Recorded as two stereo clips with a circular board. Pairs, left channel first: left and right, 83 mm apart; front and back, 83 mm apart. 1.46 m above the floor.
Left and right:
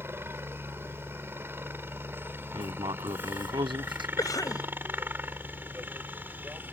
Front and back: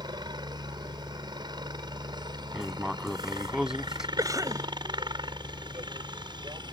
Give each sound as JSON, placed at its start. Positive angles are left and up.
{"t": 0.0, "sound": "a helicopter", "azimuth_deg": -150}
{"t": 2.5, "sound": "writing", "azimuth_deg": -95}
{"t": 4.2, "sound": "a cough", "azimuth_deg": 135}